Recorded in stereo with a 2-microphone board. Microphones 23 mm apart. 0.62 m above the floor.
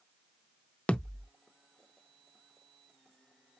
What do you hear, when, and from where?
0.9 s a thud: 70° left (ahead or behind), 0.6 m